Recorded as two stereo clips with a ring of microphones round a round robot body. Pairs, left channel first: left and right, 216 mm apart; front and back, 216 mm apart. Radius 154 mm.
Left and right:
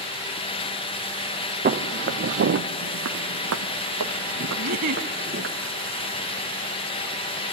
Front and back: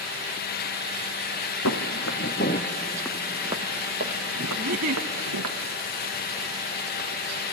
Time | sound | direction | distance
1.6 | footsteps | 40° right | 1.5 m
4.6 | a giggle | 135° right | 0.8 m